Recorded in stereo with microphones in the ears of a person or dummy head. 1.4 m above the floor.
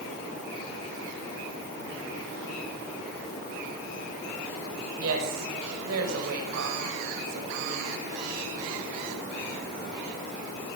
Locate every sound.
5.0 s a woman speaking: 80° right, 5 m; by 8.1 s 85° right, 7.5 m